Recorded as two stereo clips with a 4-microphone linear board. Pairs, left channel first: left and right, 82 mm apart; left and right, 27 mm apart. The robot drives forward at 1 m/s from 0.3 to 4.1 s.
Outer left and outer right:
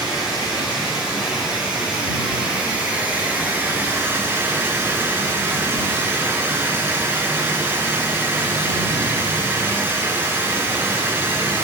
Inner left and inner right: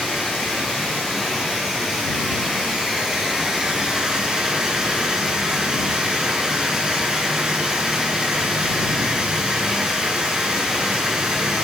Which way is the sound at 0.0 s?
10° right (ahead or behind).